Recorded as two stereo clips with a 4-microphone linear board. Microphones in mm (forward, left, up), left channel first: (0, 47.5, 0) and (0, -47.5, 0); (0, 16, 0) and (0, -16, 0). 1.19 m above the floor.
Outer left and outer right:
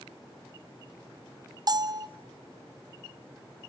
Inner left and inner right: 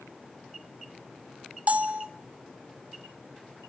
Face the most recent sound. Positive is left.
turn(degrees=-40)  # may be behind; listen again after turning